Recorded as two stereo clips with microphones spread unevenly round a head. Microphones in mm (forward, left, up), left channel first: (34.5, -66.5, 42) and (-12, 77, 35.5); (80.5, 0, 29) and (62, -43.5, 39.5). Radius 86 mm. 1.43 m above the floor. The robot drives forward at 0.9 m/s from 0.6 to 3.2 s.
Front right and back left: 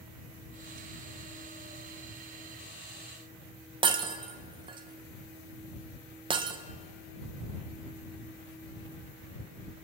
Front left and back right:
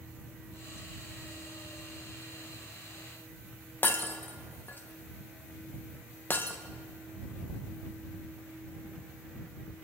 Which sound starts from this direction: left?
Breaking glass, at 3.8 s.